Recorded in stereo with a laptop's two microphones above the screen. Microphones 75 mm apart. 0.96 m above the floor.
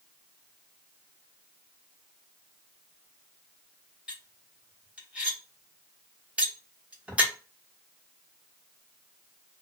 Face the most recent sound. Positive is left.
turn(degrees=-20)  # may be behind; listen again after turning